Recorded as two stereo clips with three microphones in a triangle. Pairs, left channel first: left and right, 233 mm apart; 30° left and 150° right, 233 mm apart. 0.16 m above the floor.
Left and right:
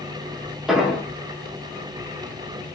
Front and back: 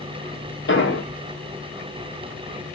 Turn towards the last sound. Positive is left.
turn(degrees=0)